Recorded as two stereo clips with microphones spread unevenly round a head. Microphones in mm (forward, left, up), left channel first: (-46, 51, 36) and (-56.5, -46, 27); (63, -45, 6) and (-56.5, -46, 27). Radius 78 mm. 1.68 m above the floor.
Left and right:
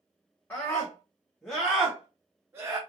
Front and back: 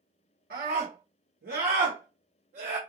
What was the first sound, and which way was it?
A scream, 155° left.